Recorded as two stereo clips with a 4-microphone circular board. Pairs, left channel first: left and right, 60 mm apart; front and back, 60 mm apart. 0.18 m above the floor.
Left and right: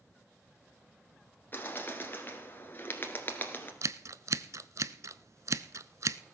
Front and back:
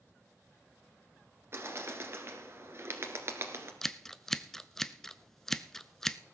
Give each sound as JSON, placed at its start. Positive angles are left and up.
{"t": 1.5, "sound": "a bird", "azimuth_deg": 140, "distance_m": 1.6}
{"t": 3.8, "sound": "scissors", "azimuth_deg": -80, "distance_m": 0.5}